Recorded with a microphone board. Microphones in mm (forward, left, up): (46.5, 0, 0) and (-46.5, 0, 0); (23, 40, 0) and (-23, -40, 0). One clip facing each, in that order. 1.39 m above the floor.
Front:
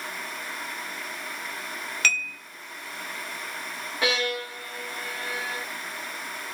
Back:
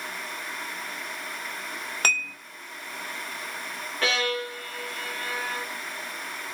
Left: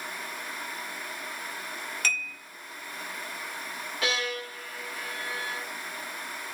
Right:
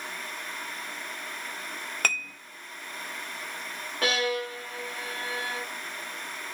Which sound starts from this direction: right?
A violin, at 4.0 s.